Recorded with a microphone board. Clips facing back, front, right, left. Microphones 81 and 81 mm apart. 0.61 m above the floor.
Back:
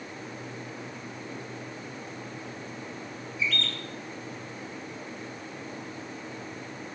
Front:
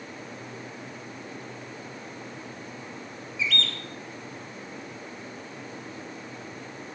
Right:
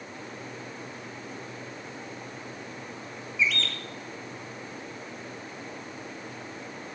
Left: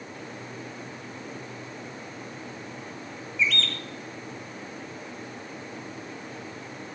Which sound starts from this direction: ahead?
A bird, at 3.4 s.